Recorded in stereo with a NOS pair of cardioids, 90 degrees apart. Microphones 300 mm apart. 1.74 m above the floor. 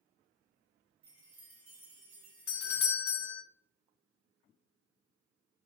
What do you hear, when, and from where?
1.0 s a chime: 50° right, 1.2 m
2.5 s a doorbell: 50° left, 0.7 m